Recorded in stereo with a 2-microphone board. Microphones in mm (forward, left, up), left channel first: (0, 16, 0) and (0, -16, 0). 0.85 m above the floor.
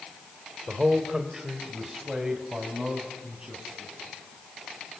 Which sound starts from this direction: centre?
A man speaking, at 0.7 s.